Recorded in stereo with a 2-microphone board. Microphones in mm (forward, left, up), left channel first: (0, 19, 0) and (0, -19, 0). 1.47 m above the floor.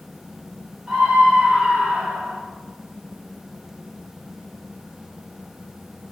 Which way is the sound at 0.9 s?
20° right (ahead or behind).